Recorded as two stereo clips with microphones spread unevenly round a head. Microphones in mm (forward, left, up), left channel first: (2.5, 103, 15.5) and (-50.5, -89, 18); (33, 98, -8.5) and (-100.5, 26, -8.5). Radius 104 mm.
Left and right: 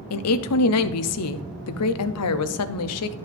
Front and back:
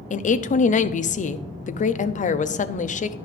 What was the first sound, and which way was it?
A woman speaking, 70° left.